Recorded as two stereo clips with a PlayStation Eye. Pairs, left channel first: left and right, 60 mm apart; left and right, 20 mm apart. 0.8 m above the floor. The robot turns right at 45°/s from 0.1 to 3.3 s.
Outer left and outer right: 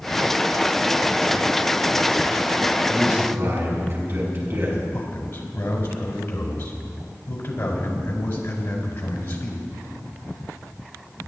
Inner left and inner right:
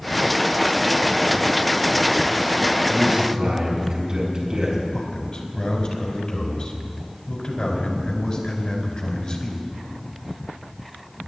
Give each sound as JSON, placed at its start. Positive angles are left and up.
{"t": 2.9, "sound": "a man speaking", "side_deg": -35, "distance_m": 6.0}
{"t": 4.9, "sound": "a man speaking", "side_deg": 35, "distance_m": 4.0}